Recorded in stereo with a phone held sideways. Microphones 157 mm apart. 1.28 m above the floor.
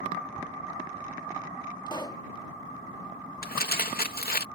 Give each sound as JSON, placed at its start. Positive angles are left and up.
{"t": 1.9, "sound": "a pop", "side_deg": 25}
{"t": 3.4, "sound": "crumpling", "side_deg": 75}